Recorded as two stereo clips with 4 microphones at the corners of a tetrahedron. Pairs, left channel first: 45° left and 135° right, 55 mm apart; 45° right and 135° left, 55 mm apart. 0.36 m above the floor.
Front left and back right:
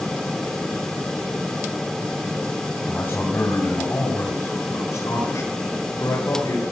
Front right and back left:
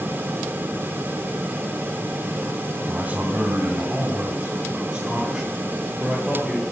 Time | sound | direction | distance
2.9 | a man speaking | 80° left | 2.5 m